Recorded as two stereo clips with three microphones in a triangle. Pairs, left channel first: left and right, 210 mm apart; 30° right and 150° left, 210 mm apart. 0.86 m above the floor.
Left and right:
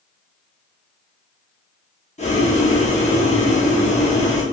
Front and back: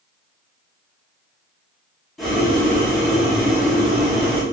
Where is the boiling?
60° left, 0.8 m.